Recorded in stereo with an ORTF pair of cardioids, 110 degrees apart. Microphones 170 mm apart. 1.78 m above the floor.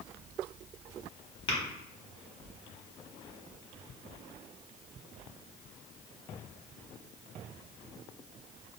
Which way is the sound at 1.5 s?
35° left.